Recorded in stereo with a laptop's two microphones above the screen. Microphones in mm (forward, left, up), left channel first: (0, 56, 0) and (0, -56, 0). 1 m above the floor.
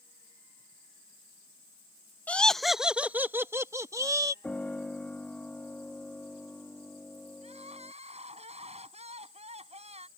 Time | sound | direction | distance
2.3 | laughter | 15° left (ahead or behind) | ?
4.4 | a piano | 10° left (ahead or behind) | ?
7.4 | crying | 85° right | ?